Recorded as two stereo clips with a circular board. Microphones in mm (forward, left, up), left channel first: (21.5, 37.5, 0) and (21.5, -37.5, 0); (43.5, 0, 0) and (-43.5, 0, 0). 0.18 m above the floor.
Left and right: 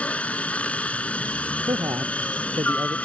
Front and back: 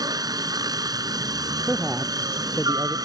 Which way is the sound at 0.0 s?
160° left.